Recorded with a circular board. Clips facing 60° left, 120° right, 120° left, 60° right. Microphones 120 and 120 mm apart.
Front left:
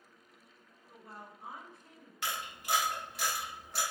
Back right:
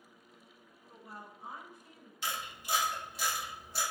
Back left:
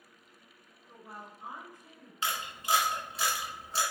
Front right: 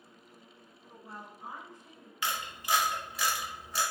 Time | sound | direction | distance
0.9 | a woman speaking | 65° left | 1.2 m
2.2 | a camera shutter | 60° left | 0.9 m